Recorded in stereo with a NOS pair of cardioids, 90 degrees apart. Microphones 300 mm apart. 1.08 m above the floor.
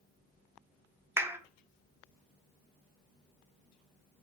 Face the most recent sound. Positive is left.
turn(degrees=-10)